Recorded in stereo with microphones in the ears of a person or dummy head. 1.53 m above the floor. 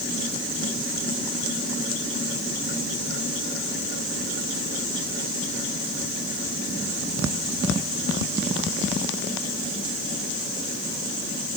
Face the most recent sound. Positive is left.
No sound to turn to.